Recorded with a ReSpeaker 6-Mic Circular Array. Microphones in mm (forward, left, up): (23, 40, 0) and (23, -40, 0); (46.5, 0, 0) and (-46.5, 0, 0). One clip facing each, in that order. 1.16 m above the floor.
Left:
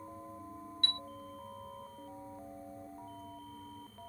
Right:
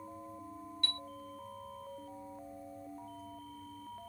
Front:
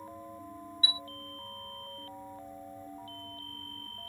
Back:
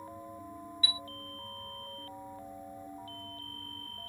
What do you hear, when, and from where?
0.8 s a chime: 60° left